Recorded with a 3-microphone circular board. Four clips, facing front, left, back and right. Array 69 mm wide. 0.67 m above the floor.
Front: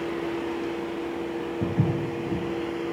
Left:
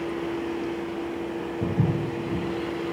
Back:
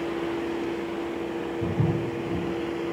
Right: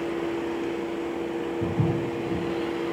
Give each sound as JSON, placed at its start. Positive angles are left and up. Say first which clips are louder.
{"t": 1.6, "sound": "footsteps", "louder": "left 1 dB, front 1 dB", "azimuth_deg": 5, "distance_m": 1.2}